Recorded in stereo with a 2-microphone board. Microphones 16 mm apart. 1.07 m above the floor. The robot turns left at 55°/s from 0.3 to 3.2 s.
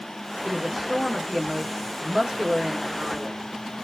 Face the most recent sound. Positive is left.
turn(degrees=-155)